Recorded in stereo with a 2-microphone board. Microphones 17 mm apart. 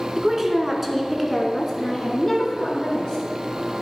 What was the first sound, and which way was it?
A woman speaking, 25° right (ahead or behind).